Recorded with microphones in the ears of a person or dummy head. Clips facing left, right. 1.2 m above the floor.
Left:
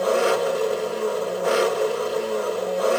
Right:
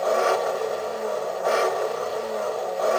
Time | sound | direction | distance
0.0 | an engine running | 40° left (ahead or behind) | 1.2 m